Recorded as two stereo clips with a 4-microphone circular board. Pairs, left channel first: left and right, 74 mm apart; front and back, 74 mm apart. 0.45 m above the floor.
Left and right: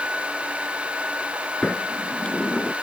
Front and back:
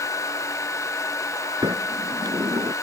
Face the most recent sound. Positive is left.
turn(degrees=165)